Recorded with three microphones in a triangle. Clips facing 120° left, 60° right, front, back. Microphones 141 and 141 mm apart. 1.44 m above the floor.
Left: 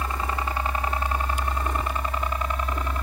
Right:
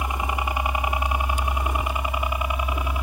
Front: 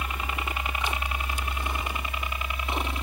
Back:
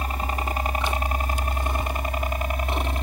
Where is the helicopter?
135° right; by 3.0 s 140° right.